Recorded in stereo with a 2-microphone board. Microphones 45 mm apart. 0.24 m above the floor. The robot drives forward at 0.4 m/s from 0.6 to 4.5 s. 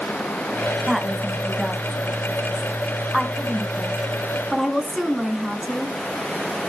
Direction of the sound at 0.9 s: 5° right (ahead or behind).